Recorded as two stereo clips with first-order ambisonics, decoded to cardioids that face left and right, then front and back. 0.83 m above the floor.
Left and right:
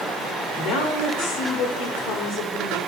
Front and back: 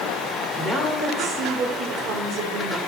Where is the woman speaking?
90° left, 2.5 m; by 2.8 s 135° left, 2.0 m.